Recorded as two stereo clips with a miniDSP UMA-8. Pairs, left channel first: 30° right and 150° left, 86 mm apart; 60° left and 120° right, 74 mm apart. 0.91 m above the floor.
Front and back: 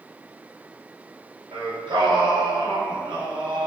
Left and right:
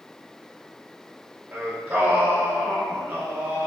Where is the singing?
170° left, 1.0 m.